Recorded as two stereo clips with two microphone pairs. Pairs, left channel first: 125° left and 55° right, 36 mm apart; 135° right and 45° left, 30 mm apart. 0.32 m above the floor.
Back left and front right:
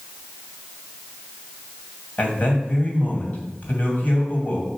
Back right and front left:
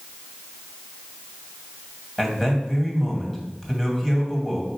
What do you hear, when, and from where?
2.2 s a man speaking: 145° left, 2 m